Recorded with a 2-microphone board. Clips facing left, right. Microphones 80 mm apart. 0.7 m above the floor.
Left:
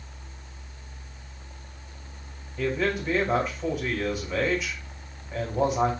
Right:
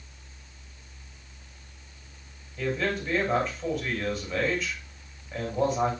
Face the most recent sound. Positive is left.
turn(degrees=10)  # may be behind; listen again after turning